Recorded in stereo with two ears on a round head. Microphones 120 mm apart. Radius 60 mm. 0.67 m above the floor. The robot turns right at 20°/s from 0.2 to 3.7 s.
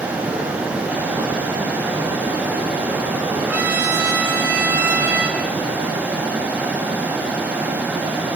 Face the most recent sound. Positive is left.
turn(degrees=-15)  # may be behind; listen again after turning